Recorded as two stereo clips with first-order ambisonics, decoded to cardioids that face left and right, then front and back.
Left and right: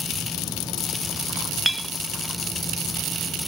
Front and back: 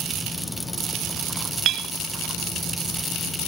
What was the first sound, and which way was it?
A clink, 175° right.